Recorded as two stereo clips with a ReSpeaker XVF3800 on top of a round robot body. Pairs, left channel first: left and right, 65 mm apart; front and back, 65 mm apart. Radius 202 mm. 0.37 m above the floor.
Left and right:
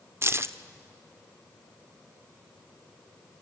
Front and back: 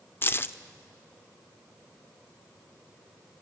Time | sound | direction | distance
0.2 | keys jangling | 50° right | 1.0 m